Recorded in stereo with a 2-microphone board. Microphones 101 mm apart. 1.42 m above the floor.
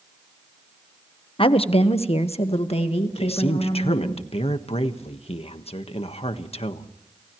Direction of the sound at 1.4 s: 60° left (ahead or behind).